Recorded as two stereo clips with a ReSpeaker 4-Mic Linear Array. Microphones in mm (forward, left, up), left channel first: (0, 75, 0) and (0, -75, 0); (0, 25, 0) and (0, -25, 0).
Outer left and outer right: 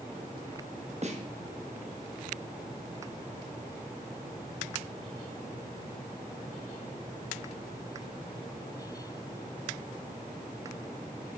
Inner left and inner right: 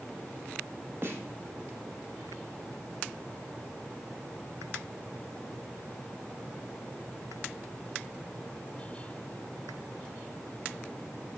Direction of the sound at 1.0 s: 50° right (ahead or behind).